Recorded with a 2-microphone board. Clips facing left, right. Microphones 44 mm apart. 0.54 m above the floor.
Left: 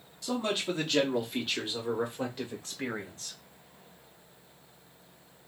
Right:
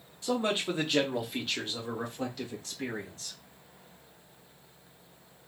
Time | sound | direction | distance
0.2 | a man speaking | 30° right (ahead or behind) | 1.0 m